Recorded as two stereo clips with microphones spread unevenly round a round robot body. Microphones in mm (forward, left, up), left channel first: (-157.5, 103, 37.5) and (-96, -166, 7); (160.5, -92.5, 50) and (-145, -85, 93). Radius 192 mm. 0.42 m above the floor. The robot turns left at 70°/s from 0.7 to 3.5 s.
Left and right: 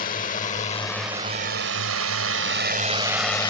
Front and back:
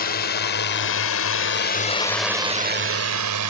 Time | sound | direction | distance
0.0 | a drone | 40° left | ?